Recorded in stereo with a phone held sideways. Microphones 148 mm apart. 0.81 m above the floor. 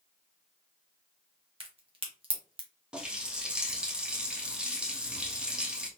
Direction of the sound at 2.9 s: 5° right (ahead or behind).